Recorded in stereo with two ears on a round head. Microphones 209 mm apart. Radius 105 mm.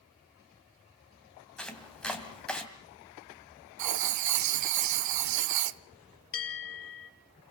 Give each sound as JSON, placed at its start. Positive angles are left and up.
{"t": 1.6, "sound": "chopping", "side_deg": 5, "distance_m": 2.5}
{"t": 3.8, "sound": "writing", "side_deg": -90, "distance_m": 0.9}
{"t": 6.3, "sound": "a bell", "side_deg": 55, "distance_m": 3.0}